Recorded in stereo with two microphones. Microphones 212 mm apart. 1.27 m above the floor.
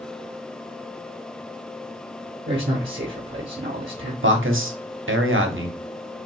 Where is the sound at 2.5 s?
55° right (ahead or behind), 0.7 m.